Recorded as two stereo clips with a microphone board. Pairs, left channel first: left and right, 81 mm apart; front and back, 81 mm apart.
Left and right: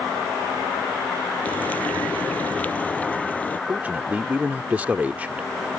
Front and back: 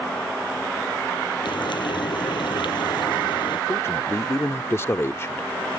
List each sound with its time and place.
1.4 s frying: 20° left
3.7 s a man speaking: 30° right